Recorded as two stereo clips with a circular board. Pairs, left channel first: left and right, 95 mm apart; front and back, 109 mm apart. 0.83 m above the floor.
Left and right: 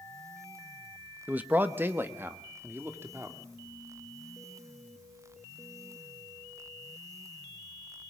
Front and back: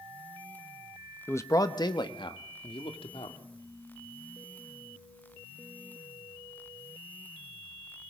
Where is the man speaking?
40° right, 1.1 m; by 3.4 s 25° right, 3 m.